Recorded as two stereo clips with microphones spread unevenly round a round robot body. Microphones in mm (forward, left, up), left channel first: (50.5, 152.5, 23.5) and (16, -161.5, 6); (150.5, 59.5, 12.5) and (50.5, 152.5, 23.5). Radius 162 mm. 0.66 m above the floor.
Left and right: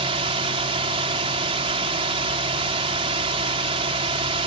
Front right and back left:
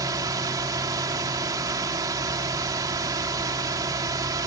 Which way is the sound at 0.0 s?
160° right.